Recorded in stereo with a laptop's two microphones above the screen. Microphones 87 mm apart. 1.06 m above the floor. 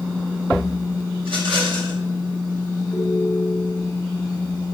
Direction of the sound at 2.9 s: Centre (ahead or behind).